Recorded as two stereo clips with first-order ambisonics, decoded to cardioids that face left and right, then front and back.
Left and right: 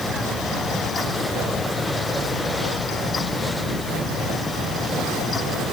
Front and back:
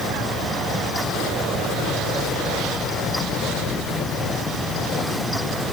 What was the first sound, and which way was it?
Only background noise.